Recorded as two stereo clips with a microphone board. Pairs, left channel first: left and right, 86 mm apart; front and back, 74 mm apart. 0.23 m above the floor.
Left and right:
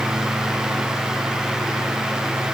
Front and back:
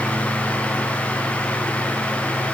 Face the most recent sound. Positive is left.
No sound to turn to.